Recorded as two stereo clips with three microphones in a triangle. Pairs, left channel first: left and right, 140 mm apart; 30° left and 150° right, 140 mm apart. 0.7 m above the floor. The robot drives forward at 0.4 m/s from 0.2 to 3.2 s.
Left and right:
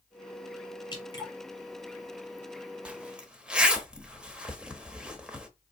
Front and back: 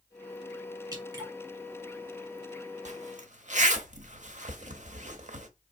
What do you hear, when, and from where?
0.9 s dripping: 150° left, 1.6 m
2.9 s a zipper: 170° right, 0.6 m; by 5.5 s 175° right, 0.8 m